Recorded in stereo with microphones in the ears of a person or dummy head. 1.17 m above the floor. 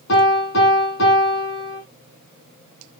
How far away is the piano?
About 5.5 m.